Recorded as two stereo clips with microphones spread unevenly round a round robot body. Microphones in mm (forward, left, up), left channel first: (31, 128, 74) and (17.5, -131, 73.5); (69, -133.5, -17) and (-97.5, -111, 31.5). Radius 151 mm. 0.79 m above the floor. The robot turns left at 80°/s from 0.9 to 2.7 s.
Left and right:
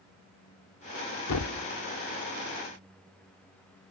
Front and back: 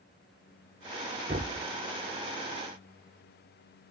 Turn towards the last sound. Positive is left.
turn(degrees=5)